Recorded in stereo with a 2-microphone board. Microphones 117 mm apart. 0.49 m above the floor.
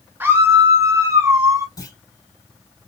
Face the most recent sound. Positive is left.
turn(degrees=35)  # may be behind; listen again after turning